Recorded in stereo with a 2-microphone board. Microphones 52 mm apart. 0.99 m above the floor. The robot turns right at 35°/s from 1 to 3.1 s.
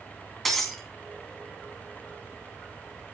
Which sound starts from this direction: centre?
Breaking glass, at 0.5 s.